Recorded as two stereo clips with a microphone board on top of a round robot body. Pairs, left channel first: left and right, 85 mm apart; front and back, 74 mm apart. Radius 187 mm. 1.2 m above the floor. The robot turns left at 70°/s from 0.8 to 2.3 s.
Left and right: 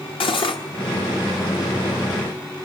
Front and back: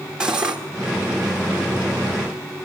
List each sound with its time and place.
0.2 s cutlery clinking: 100° left, 1.1 m